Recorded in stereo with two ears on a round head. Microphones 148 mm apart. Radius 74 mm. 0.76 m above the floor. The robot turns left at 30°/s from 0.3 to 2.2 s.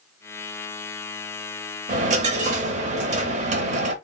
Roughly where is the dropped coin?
Right.